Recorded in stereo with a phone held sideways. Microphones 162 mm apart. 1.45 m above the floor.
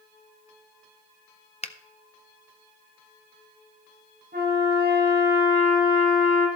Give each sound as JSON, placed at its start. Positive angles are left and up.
{"t": 1.6, "sound": "a finger snap", "side_deg": 40, "distance_m": 0.7}
{"t": 4.3, "sound": "a trumpet", "side_deg": -75, "distance_m": 5.5}